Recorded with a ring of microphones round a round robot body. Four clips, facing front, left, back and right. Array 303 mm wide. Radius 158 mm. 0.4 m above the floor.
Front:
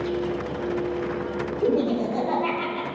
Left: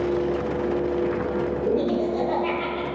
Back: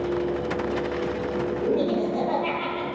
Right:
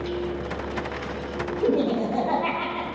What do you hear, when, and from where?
1.6 s laughter: 70° right, 4 m